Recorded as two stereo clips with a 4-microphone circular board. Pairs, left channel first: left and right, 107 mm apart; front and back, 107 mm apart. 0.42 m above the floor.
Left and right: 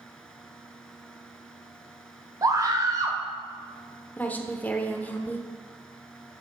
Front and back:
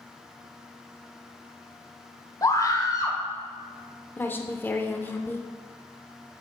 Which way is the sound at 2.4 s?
45° right.